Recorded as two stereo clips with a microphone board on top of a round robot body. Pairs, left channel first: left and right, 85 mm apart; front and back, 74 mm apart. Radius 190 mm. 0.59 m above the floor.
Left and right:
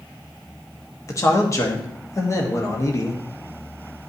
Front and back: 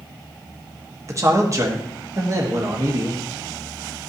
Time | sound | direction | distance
1.1 | a man speaking | 140° left | 1.2 m